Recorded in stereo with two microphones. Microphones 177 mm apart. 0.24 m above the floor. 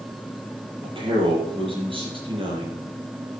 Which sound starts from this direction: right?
A man speaking, at 0.8 s.